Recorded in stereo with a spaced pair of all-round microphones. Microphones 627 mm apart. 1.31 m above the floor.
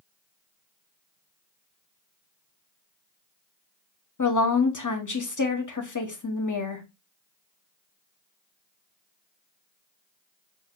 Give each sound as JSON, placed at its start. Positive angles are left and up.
{"t": 4.2, "sound": "a woman speaking", "side_deg": 30, "distance_m": 0.7}